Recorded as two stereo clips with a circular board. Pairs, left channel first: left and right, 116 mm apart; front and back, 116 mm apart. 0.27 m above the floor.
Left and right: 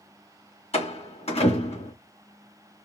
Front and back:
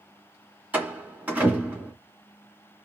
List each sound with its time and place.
0.7 s a door slam: 105° left, 2.5 m